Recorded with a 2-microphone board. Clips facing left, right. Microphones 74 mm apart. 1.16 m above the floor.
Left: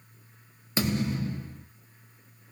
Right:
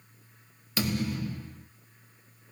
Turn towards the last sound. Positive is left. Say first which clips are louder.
# left 2 dB
turn(degrees=25)  # may be behind; listen again after turning